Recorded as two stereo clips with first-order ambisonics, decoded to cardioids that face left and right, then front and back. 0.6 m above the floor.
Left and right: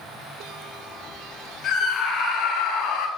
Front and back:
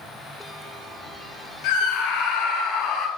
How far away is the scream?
About 5 m.